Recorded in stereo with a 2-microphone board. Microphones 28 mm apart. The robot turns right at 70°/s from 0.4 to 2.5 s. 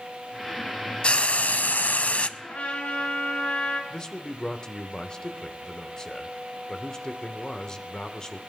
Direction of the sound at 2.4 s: 80° left.